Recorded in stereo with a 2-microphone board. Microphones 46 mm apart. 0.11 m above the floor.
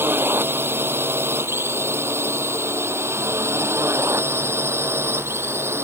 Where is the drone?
55° right (ahead or behind); by 5.8 s 65° right (ahead or behind).